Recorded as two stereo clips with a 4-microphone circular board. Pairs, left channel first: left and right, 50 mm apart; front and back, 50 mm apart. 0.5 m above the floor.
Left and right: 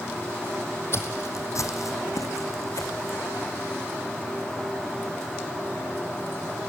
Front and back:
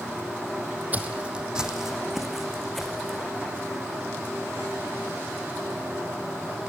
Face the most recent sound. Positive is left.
turn(degrees=85)